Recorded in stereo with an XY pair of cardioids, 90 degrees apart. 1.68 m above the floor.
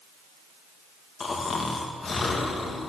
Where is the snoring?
40° left, 2 m.